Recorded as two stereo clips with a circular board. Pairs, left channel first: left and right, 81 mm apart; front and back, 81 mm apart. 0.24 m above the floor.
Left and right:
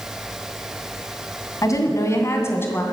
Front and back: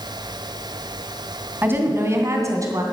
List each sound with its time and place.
1.6 s a woman speaking: 120° left, 2.5 m; by 2.8 s 150° left, 2.5 m